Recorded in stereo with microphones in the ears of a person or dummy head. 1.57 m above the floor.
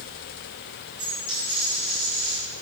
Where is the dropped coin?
50° right (ahead or behind), 4.5 m.